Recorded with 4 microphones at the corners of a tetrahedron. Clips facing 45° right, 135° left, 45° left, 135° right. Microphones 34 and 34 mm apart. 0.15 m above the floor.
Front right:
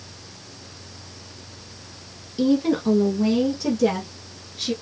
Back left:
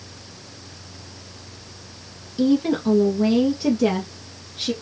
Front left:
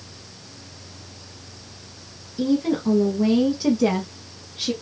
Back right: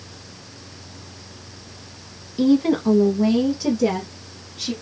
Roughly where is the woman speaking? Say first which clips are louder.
Back left 1 dB, back right 4 dB; behind right.